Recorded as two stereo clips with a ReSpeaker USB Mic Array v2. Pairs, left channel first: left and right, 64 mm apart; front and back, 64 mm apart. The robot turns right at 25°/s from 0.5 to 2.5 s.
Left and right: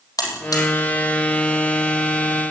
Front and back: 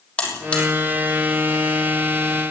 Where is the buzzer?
70° left, 5.5 m; by 0.7 s 75° left, 5.5 m.